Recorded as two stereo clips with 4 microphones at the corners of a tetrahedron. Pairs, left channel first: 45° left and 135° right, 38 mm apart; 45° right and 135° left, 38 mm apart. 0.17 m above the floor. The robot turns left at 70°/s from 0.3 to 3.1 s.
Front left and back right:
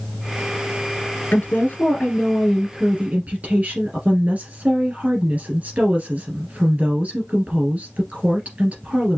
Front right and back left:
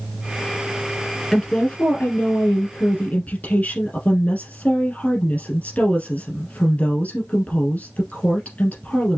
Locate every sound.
1.3 s a woman speaking: 35° left, 2.5 m; by 9.2 s 90° right, 2.5 m